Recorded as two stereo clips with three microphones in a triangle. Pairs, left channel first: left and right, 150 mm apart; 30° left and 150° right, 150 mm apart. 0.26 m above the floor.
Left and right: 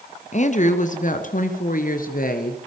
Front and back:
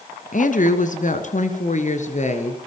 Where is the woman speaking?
55° left, 2.5 m; by 2.6 s 70° left, 4 m.